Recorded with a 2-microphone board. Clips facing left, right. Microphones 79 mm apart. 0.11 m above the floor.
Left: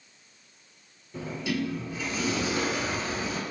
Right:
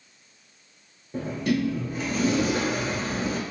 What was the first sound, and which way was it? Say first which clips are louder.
A sliding door: right 5 dB; 50° right (ahead or behind).